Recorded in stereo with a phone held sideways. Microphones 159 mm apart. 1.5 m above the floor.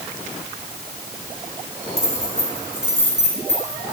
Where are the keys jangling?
75° left (ahead or behind), 3 m.